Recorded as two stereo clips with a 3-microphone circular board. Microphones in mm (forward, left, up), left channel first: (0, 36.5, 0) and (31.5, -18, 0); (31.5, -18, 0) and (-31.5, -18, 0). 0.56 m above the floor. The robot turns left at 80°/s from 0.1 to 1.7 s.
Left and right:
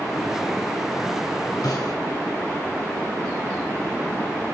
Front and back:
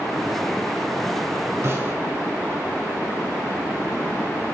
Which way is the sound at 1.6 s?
140° left.